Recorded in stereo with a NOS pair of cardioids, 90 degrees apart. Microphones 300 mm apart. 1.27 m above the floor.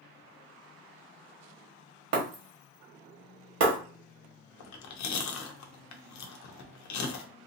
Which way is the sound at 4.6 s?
70° left.